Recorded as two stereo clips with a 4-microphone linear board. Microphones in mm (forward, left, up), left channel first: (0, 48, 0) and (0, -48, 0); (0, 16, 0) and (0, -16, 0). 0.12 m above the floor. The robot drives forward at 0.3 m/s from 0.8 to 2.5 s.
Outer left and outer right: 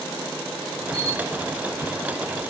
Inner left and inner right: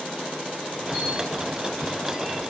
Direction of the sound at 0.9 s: 45° right (ahead or behind).